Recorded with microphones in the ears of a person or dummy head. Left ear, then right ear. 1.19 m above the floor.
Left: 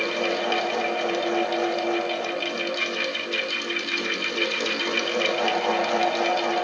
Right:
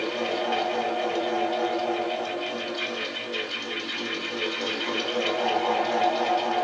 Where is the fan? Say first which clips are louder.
Left 3 dB; 75° left (ahead or behind), 0.7 m.